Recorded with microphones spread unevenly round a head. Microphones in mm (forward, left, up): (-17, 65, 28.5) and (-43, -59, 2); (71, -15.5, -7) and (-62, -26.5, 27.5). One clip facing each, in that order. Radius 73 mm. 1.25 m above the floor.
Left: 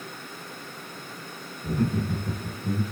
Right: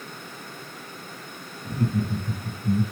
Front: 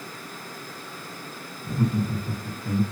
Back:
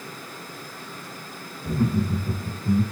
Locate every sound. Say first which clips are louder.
1.6 s laughter: even, back 2 dB; 120° left, 1.0 m; by 2.8 s 90° left, 1.3 m